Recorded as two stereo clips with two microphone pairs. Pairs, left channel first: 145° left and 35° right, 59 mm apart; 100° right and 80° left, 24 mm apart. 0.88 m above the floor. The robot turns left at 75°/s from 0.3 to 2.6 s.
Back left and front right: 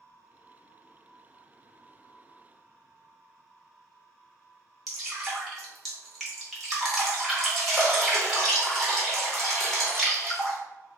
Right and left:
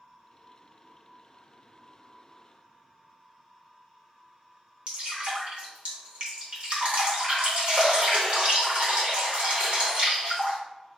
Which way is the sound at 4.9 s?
55° left.